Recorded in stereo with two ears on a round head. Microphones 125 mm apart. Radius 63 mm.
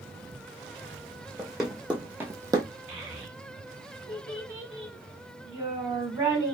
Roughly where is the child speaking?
Centre.